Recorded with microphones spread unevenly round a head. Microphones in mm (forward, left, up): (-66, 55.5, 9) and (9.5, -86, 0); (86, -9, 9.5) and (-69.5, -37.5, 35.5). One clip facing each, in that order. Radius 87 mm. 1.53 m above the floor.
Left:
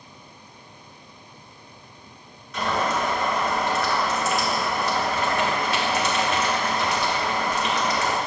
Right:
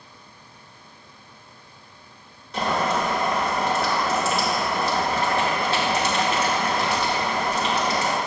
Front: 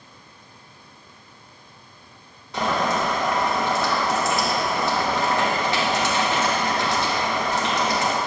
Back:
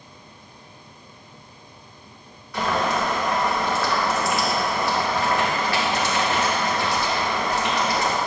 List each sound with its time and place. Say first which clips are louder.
2.5 s boiling: right 1 dB, even; 50° right, 1.2 m